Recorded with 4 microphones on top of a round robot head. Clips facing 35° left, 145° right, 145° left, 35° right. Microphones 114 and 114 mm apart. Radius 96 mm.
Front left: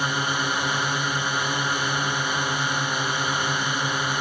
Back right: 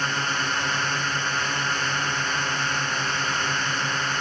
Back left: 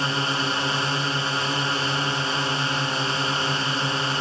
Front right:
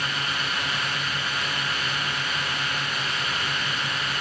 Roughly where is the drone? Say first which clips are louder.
Front left 2 dB, back left 5 dB; left.